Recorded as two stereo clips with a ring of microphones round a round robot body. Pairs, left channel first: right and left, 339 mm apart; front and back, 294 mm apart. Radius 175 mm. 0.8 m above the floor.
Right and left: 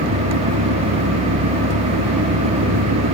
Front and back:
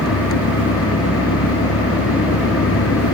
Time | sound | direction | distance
0.0 | an engine running | 45° left | ?